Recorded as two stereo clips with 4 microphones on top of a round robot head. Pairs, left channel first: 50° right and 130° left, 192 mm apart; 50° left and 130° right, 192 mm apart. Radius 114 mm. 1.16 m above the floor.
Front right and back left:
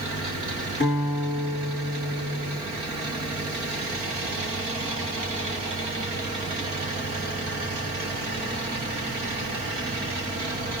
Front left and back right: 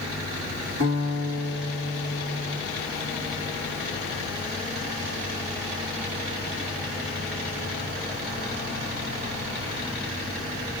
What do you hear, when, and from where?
0.8 s a guitar: 100° right, 2.5 m